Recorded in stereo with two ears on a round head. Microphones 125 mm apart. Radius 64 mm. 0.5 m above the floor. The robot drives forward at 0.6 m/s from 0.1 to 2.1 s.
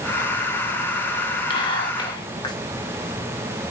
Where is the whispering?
35° left (ahead or behind), 0.9 m.